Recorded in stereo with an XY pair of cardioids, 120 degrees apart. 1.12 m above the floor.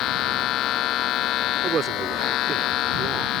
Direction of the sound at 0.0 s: 70° left.